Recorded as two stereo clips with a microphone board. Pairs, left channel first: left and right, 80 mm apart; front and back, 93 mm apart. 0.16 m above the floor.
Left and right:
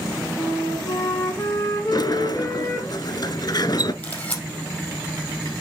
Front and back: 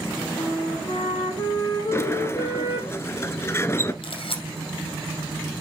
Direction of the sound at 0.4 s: 35° left.